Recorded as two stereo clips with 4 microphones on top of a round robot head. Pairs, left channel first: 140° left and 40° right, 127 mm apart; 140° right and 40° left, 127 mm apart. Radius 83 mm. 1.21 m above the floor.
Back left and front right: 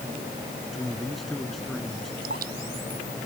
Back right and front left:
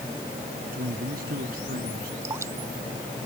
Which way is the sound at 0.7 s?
50° left.